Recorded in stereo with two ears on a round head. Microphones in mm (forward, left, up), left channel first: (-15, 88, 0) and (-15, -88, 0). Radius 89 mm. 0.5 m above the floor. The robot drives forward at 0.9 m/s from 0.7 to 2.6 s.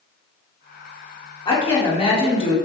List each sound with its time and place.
1.4 s a woman speaking: 25° left (ahead or behind), 1.4 m; by 2.5 s 30° left (ahead or behind), 1.3 m